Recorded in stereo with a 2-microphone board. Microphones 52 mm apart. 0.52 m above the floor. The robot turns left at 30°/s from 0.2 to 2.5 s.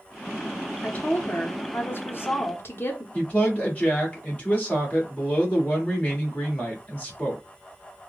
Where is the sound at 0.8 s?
135° left, 0.9 m; by 3.0 s 85° left, 0.9 m.